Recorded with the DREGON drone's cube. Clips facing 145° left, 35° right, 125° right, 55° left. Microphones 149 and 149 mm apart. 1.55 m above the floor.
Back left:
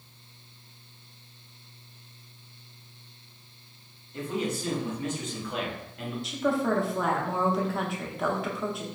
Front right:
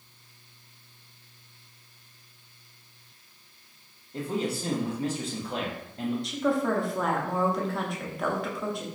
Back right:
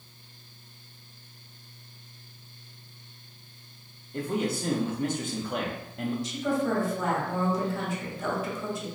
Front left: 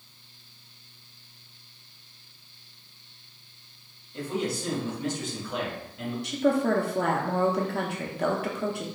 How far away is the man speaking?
About 0.9 m.